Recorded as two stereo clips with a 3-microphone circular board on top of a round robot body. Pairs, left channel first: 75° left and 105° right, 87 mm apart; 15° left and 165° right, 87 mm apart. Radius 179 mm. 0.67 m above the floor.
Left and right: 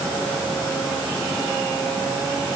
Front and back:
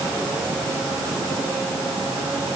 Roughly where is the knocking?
No knocking in this recording.